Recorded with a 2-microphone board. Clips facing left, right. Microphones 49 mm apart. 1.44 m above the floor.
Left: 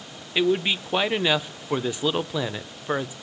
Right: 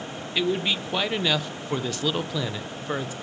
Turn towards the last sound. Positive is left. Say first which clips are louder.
# left 3 dB
turn(degrees=15)  # may be behind; listen again after turning